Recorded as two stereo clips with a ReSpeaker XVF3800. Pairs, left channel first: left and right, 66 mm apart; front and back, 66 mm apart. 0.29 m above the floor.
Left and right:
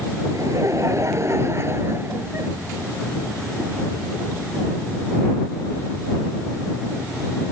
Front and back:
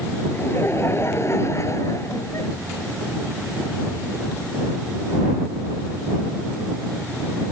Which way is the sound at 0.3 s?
55° right.